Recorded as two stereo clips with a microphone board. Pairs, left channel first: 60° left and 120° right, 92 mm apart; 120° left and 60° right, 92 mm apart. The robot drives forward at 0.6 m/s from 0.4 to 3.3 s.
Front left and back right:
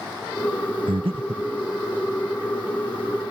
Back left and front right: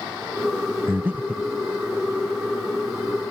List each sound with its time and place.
0.9 s breathing: 125° right; by 1.5 s 135° right